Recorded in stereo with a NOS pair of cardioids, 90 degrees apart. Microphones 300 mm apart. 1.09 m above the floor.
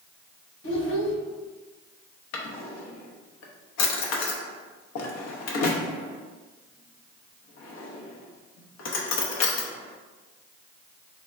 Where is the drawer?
70° left, 0.7 m.